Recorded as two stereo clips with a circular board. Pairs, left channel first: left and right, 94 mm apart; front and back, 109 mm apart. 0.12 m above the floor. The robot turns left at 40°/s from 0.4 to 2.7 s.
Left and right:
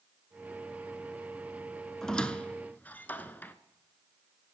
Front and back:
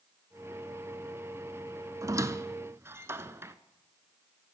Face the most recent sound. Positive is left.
turn(degrees=140)